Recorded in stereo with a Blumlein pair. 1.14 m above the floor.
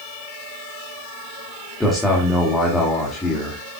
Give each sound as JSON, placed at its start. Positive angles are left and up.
{"t": 1.8, "sound": "a man speaking", "azimuth_deg": 5, "distance_m": 2.5}